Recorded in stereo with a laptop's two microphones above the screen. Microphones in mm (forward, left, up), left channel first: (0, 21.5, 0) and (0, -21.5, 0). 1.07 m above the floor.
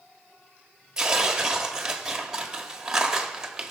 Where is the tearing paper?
10° right (ahead or behind), 1.1 m.